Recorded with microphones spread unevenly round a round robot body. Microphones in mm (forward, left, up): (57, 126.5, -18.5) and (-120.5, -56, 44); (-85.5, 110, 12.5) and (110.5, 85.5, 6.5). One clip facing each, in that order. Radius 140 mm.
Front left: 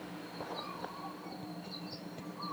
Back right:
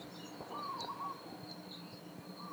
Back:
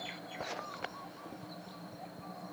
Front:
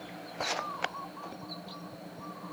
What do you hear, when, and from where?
Only background noise.